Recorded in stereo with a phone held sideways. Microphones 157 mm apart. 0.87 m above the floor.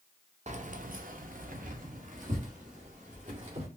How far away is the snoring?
No snoring in this recording.